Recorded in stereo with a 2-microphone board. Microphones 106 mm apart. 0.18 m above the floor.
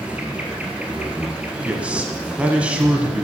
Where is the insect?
10° right (ahead or behind), 1.6 m.